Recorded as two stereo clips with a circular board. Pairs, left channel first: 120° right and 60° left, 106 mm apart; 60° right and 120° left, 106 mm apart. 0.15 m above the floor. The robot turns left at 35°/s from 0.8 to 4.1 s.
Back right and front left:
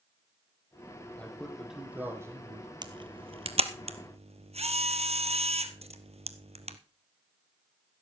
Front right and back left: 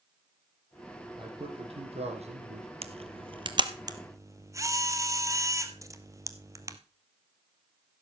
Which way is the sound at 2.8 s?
105° left.